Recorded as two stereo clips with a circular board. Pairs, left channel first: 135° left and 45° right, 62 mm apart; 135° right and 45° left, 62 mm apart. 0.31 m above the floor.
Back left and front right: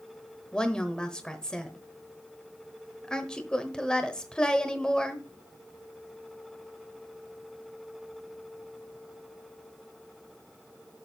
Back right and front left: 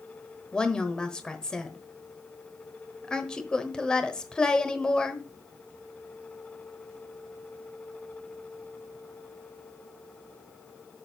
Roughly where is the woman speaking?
Behind.